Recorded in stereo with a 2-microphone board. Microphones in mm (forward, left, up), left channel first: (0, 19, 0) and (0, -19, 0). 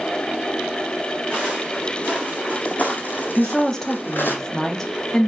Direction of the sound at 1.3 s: 35° left (ahead or behind).